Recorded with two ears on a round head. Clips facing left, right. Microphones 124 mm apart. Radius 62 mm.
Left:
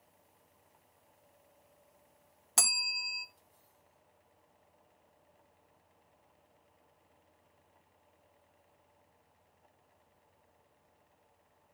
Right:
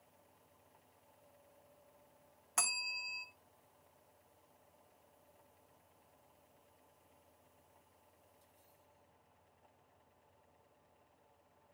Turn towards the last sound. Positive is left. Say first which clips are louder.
# left 3 dB
turn(degrees=40)  # may be behind; listen again after turning